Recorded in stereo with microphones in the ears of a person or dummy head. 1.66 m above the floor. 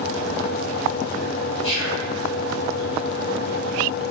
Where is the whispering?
45° left (ahead or behind), 1.4 m.